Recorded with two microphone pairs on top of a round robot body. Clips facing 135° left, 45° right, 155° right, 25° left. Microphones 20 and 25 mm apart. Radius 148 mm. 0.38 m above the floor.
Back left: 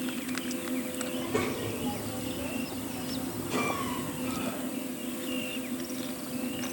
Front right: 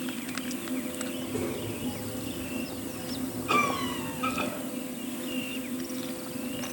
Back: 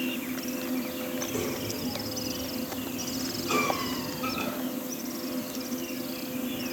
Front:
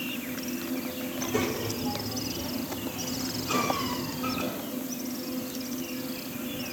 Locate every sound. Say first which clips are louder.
1.1 s a child speaking: back left 4 dB, front 4 dB; 90° left, 2.0 m; by 4.5 s 100° left, 3.5 m
3.5 s a cough: front right 5 dB, back 1 dB; 80° right, 7 m